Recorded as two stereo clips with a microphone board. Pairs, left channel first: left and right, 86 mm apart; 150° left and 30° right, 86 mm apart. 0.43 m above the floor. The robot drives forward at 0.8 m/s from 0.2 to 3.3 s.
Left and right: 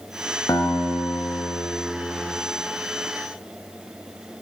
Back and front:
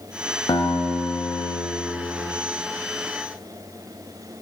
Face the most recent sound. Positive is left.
turn(degrees=165)